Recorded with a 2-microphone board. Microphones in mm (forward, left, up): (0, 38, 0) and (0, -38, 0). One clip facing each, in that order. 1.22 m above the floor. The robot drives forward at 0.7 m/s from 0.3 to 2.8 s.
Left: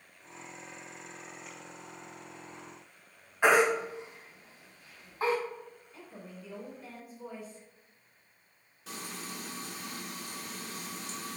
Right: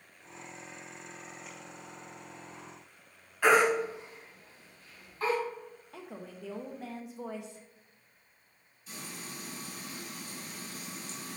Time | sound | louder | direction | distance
3.4 | a baby crying | even | 20° left (ahead or behind) | 3.5 m
5.9 | a woman speaking | right 4 dB | 80° right | 1.5 m
8.9 | frying | left 3 dB | 85° left | 2.5 m